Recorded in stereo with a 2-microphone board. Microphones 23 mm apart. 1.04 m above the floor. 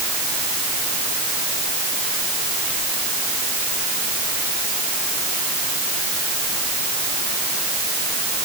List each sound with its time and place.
Only background noise.